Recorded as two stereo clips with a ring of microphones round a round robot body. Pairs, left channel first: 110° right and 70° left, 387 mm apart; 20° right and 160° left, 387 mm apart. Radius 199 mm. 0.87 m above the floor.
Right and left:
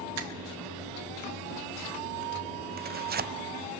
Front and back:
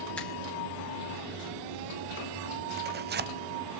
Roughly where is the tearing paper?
Behind left.